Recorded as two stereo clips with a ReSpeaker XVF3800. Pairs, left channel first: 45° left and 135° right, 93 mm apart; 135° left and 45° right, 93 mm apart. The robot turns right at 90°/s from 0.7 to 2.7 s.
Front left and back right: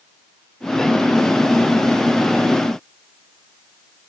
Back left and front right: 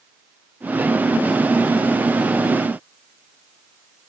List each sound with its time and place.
Only background noise.